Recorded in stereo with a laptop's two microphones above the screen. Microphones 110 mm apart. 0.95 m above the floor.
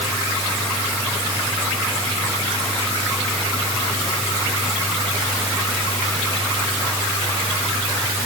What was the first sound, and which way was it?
Only background noise.